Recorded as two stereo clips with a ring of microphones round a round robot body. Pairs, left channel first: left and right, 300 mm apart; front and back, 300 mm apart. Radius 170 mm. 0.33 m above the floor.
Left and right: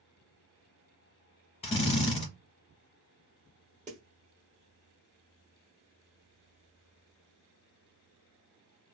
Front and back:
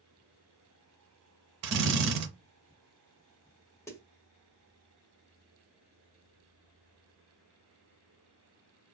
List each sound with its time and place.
1.6 s a drill: 160° left, 0.8 m
3.9 s a snare drum: 70° right, 1.2 m